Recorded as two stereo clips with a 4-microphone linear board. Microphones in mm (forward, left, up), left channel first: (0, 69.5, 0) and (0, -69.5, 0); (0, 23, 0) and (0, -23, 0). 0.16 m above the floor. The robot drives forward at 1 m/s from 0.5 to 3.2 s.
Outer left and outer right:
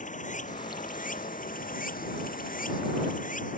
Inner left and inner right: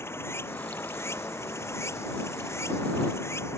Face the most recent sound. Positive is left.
turn(degrees=70)  # may be behind; listen again after turning